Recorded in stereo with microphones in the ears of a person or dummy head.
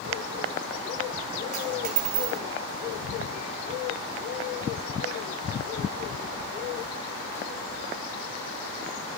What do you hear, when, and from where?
1.5 s a dropped coin: 40° right (ahead or behind), 2 m